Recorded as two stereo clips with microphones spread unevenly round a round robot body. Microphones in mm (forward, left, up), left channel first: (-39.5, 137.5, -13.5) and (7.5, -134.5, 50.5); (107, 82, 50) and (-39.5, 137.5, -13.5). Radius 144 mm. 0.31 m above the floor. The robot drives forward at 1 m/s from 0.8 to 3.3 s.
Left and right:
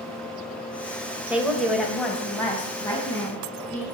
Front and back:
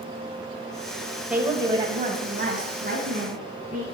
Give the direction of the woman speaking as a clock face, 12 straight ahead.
6 o'clock.